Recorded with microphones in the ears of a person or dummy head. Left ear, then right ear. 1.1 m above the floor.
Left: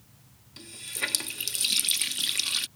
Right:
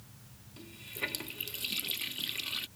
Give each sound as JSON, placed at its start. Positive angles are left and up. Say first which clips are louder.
{"t": 0.6, "sound": "a running tap", "louder": "left 6 dB", "side_deg": 40}